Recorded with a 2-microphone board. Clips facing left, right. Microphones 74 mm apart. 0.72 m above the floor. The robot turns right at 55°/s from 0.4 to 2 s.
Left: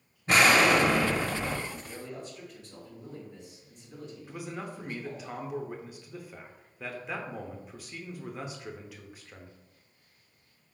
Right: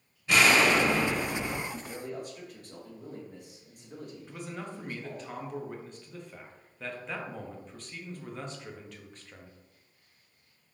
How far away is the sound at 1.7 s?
About 1.4 m.